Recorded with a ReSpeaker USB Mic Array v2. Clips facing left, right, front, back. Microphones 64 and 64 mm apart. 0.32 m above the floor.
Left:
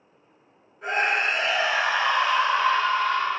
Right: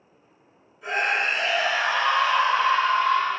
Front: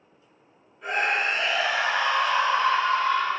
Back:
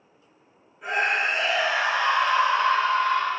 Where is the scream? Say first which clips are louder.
Left 1 dB, back 1 dB; 100° left, 1.6 m; by 3.4 s 150° right, 1.8 m.